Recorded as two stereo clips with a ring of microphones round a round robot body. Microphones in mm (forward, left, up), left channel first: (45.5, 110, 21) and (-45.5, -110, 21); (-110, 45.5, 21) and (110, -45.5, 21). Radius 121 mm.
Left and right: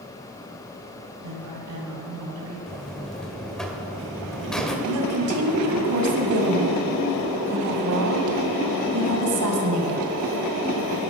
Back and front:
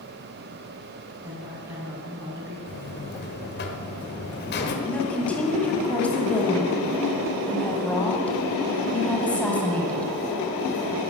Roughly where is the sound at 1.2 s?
Right.